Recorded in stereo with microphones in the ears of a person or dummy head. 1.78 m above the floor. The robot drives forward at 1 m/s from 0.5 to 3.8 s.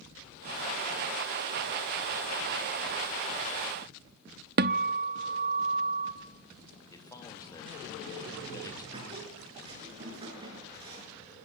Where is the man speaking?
25° left (ahead or behind), 3 m.